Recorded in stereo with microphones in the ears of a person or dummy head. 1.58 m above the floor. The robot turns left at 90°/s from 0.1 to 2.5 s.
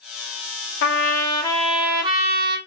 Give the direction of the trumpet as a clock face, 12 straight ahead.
9 o'clock.